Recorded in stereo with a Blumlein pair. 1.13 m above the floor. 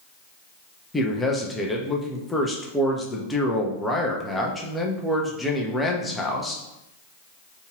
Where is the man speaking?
10° left, 0.7 m.